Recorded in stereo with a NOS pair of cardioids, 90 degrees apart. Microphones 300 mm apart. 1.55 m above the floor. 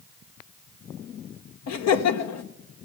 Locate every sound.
1.7 s laughter: 60° left, 1.3 m